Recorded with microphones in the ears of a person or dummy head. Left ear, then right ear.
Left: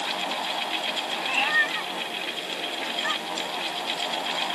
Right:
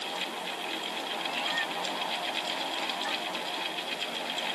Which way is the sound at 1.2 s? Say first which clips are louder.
Left 10 dB; 30° left (ahead or behind).